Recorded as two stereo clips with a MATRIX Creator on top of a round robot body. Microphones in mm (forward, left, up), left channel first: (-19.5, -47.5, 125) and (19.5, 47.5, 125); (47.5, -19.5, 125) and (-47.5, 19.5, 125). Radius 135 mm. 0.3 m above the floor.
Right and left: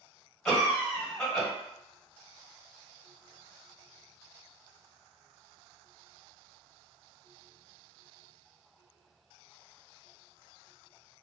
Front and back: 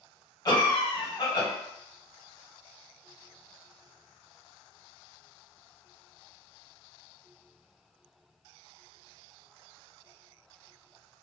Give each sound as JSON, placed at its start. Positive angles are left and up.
{"t": 0.5, "sound": "a cough", "azimuth_deg": -35, "distance_m": 1.6}